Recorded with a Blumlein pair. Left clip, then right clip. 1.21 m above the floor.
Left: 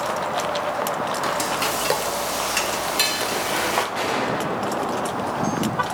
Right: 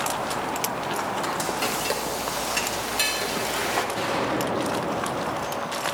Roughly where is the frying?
Ahead.